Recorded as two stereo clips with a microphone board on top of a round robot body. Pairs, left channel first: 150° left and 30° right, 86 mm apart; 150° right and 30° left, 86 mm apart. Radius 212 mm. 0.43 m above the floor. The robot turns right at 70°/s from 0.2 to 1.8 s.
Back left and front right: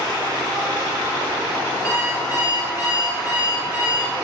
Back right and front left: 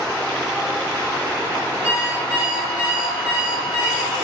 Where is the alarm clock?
100° left, 5.5 m.